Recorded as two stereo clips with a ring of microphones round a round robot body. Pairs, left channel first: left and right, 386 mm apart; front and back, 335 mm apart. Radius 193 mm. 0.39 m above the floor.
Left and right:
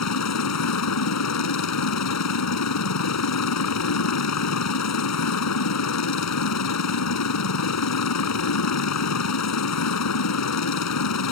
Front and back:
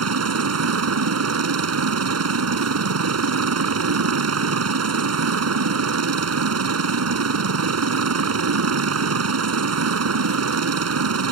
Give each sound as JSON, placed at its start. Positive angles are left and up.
{"t": 0.0, "sound": "a helicopter", "azimuth_deg": 140}